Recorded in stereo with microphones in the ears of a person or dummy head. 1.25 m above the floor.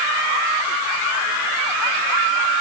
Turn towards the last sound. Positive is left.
No sound to turn to.